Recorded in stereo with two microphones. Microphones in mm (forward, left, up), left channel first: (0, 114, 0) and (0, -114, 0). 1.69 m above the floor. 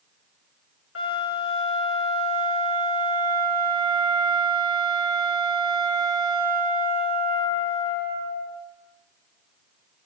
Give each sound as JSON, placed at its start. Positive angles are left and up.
{"t": 0.9, "sound": "a flute", "side_deg": 75, "distance_m": 1.5}